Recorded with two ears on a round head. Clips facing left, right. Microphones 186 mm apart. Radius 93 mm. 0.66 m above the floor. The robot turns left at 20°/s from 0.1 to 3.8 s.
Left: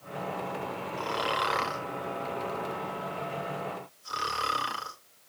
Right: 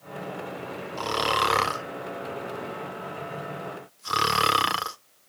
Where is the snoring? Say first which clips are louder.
Right 5 dB; 50° right (ahead or behind), 0.7 m; by 5.0 s 75° right (ahead or behind), 0.7 m.